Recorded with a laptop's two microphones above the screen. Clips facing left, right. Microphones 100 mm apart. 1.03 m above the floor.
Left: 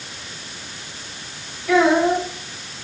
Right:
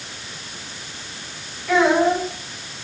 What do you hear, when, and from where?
1.7 s a child speaking: centre (ahead or behind), 5 m